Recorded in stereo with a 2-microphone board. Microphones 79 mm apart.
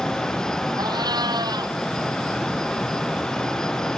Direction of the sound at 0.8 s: 60° right (ahead or behind).